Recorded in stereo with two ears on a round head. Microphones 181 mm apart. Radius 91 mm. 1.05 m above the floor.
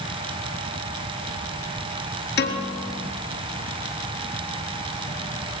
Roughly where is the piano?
Left.